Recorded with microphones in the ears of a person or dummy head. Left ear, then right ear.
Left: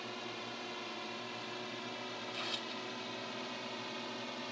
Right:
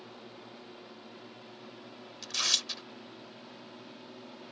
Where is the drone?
55° left (ahead or behind); by 4.5 s 50° left (ahead or behind).